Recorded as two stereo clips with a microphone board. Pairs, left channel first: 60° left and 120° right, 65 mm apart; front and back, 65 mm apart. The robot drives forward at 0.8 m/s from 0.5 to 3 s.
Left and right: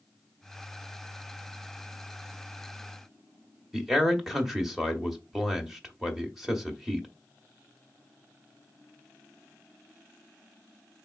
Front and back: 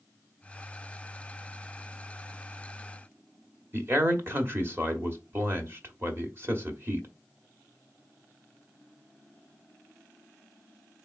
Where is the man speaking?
155° left, 1.0 m.